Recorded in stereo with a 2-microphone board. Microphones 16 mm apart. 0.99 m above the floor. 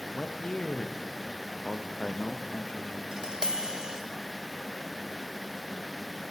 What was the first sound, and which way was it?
A man speaking, 75° left (ahead or behind).